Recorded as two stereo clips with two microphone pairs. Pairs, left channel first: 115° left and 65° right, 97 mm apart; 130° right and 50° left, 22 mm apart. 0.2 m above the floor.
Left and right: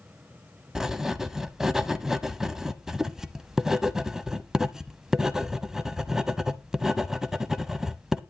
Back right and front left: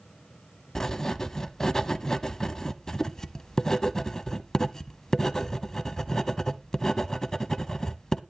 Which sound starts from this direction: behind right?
Writing, at 0.8 s.